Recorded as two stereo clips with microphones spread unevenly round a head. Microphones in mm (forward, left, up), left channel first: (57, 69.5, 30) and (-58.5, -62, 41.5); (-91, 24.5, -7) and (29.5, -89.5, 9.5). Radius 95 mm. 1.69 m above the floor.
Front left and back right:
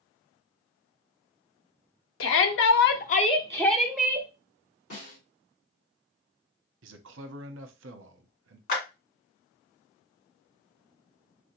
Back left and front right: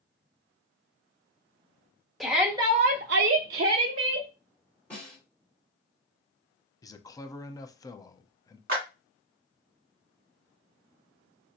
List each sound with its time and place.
2.2 s a shout: 45° left, 0.9 m; by 4.3 s 55° right, 1.1 m
4.9 s a snare drum: 55° left, 2.5 m
6.8 s a man speaking: 150° right, 0.6 m
8.7 s a clap: straight ahead, 2 m